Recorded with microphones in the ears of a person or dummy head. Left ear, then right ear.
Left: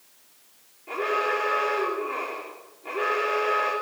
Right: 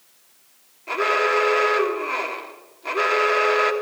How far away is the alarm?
About 3.5 m.